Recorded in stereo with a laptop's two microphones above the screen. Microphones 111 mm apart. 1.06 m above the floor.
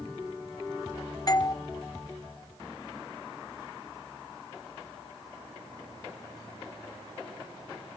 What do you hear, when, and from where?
1.3 s a doorbell: 35° left (ahead or behind), 0.6 m